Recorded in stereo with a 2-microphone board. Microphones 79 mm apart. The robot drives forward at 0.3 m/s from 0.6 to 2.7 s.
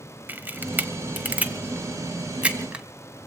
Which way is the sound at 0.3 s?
25° right (ahead or behind).